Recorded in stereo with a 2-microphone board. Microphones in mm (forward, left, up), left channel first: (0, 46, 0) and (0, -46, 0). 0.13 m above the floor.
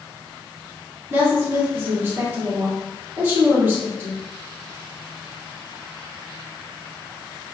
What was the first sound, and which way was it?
A woman speaking, 25° right (ahead or behind).